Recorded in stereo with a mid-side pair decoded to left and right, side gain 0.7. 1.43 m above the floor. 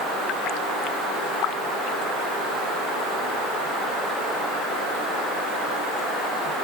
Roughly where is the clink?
No clink in this recording.